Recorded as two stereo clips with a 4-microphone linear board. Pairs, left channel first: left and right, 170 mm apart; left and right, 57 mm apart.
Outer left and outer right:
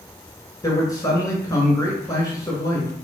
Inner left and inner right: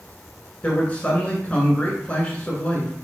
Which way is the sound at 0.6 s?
20° left (ahead or behind).